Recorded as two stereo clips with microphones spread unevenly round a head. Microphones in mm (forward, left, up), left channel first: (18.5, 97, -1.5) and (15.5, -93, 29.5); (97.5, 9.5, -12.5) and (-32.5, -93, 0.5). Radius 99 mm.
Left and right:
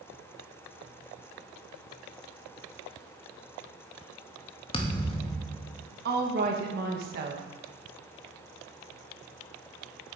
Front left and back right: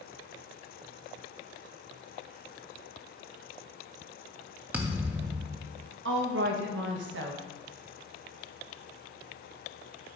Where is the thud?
150° left, 1.1 m.